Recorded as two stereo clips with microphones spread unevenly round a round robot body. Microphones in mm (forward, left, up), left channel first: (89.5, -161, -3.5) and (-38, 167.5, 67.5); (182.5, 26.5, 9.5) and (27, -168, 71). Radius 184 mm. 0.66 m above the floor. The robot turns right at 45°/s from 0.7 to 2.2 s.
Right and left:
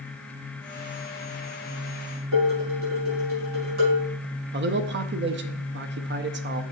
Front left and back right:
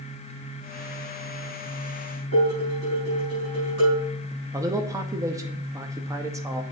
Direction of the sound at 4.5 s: 135° left.